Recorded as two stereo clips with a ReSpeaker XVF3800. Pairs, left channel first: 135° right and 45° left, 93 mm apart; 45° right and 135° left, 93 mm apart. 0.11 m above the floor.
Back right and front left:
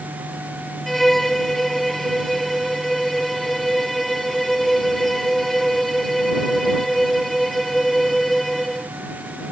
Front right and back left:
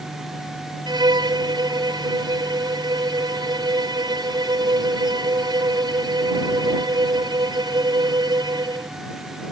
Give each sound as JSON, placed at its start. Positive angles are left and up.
{"t": 0.9, "sound": "a violin", "azimuth_deg": 140}